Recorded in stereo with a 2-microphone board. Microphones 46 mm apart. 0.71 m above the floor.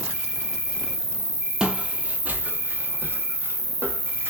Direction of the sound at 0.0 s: 40° right (ahead or behind).